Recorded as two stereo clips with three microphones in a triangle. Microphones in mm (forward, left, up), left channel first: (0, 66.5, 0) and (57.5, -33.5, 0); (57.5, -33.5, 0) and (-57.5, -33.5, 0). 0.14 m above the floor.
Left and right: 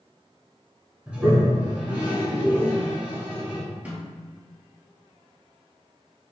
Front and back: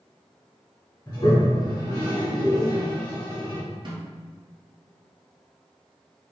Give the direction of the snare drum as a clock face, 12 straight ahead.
5 o'clock.